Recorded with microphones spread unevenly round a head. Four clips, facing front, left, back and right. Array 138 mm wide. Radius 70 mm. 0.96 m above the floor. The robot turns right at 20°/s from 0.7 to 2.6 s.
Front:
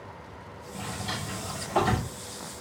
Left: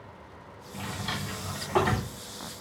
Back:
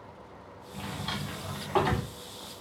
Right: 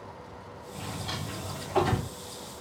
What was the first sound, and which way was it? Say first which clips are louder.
A drawer: left 2 dB, front 1 dB; 110° left.